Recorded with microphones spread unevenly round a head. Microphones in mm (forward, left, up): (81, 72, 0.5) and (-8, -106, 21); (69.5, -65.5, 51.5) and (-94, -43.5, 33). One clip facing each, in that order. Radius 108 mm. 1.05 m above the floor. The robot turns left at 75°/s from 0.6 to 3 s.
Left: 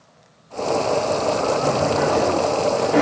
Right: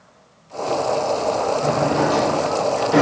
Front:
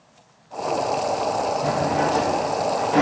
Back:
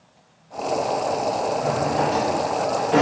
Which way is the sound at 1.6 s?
55° right.